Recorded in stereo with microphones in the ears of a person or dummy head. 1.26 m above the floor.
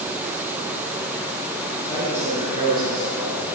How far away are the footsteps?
No footsteps in this recording.